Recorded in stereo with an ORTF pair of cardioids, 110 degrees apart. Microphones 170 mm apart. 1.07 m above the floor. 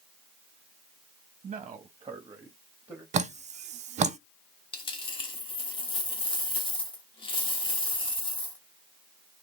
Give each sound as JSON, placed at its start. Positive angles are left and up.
{"t": 1.4, "sound": "a man speaking", "azimuth_deg": -35, "distance_m": 1.0}
{"t": 3.1, "sound": "dripping", "azimuth_deg": -45, "distance_m": 0.5}
{"t": 4.7, "sound": "a dropped coin", "azimuth_deg": 30, "distance_m": 1.2}